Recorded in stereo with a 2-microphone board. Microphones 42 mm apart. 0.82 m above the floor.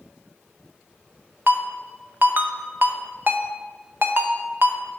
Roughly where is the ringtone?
Right.